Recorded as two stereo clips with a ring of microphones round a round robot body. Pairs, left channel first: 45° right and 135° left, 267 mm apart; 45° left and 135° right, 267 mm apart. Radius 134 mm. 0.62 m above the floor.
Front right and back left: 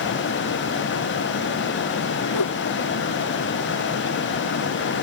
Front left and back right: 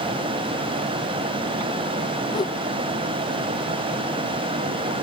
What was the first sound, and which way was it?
A whoosh, 30° right.